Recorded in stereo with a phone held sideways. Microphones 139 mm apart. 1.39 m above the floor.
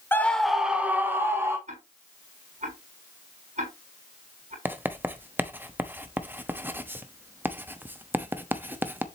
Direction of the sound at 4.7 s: 15° right (ahead or behind).